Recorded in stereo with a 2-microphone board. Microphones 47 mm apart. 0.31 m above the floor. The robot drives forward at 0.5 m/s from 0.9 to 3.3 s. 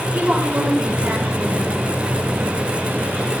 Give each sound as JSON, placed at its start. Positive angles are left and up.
{"t": 0.1, "sound": "a woman speaking", "side_deg": -45, "distance_m": 8.5}